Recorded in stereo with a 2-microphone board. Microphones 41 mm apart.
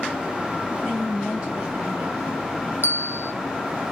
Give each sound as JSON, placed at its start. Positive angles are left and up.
{"t": 0.8, "sound": "a woman speaking", "side_deg": -20, "distance_m": 1.6}
{"t": 2.8, "sound": "a bell", "side_deg": -65, "distance_m": 0.6}